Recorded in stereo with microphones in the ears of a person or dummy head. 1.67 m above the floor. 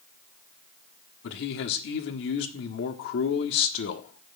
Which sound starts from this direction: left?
A man speaking, at 1.2 s.